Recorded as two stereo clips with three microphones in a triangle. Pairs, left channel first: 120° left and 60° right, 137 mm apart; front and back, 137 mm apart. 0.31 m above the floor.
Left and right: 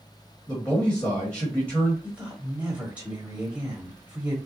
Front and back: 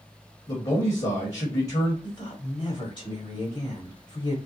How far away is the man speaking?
About 1.5 m.